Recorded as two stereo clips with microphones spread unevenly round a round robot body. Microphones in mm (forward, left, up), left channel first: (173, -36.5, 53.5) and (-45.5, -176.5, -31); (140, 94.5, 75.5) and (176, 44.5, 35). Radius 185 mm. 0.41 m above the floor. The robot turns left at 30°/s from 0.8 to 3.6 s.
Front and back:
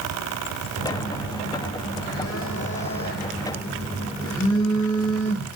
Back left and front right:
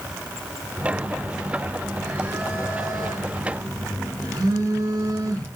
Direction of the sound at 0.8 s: 45° left.